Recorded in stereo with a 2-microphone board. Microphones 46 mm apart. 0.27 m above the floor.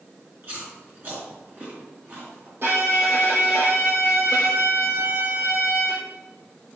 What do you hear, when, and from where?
0.4 s chewing: 45° right (ahead or behind), 3 m
2.6 s a violin: 50° right (ahead or behind), 1.8 m